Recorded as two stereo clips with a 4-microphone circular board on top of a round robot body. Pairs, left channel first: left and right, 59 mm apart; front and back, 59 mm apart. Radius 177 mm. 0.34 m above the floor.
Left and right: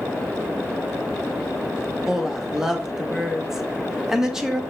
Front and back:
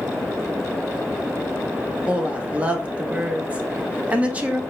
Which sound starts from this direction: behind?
A woman speaking, at 2.1 s.